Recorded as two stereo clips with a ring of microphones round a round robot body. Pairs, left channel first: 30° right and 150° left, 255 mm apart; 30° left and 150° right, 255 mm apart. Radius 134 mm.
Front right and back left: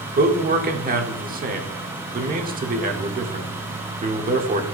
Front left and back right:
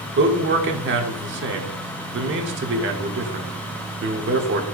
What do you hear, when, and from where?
0.2 s a man speaking: 165° right, 1.2 m